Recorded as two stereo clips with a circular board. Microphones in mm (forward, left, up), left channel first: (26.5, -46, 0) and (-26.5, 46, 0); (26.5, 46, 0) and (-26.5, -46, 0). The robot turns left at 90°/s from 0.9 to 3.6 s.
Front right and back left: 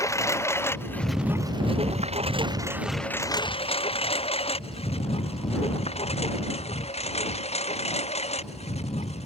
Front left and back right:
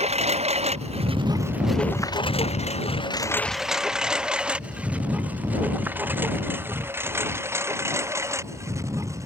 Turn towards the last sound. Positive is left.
turn(degrees=-60)